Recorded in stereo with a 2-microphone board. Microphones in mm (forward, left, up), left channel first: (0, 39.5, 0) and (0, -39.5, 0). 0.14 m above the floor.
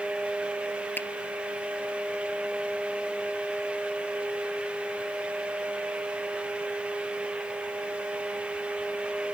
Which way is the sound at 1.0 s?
25° left (ahead or behind).